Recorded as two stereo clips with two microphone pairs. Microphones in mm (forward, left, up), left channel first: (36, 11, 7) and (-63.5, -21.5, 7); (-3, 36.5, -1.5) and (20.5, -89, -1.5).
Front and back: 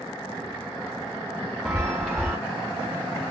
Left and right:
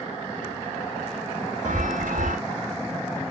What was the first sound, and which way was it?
A chime, 70° right.